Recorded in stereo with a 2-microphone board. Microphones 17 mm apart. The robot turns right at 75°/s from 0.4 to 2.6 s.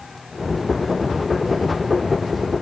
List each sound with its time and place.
Only background noise.